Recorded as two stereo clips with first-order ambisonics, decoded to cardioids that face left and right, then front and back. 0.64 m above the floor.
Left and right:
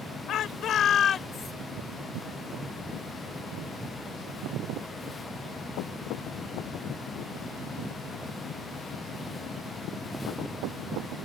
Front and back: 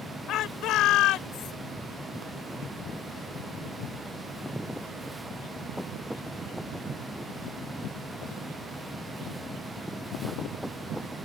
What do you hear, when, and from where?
0.3 s a shout: 45° left; by 1.5 s 30° left